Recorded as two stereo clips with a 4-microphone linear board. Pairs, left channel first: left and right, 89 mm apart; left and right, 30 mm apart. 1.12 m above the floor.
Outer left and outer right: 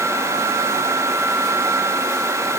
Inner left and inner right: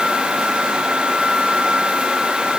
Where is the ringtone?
I don't hear a ringtone.